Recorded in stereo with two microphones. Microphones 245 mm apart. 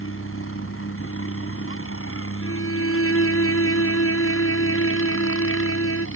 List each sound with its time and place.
0.0 s a helicopter: 60° left (ahead or behind)
2.4 s a violin: 65° left (ahead or behind)